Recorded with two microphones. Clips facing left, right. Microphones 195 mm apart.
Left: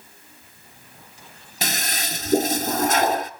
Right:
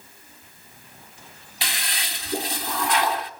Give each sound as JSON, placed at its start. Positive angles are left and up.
{"t": 1.6, "sound": "a toilet flushing", "side_deg": 45, "distance_m": 0.8}